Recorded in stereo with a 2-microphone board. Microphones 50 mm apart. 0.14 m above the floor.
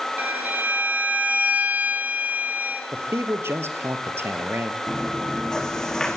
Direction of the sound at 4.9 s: 10° left (ahead or behind).